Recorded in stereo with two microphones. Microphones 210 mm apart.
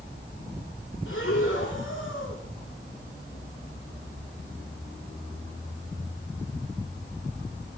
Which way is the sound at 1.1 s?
75° left (ahead or behind).